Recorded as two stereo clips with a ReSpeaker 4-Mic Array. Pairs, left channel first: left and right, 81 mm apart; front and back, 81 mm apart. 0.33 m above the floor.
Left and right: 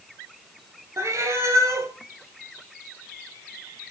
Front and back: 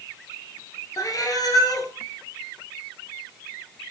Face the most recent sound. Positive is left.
turn(degrees=-40)